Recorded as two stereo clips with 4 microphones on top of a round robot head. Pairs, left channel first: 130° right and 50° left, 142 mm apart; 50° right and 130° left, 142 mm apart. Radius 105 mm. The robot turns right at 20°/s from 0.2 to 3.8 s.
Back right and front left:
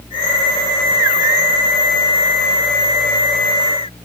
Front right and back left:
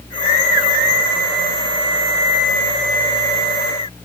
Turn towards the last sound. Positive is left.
No sound to turn to.